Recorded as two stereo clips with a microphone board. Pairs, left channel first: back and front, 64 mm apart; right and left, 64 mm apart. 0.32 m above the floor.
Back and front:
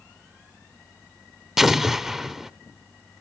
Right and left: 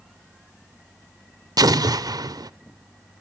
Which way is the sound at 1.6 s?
85° left.